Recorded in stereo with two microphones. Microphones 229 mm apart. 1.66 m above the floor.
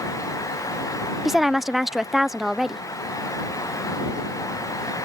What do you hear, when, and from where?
1.2 s a woman speaking: centre (ahead or behind)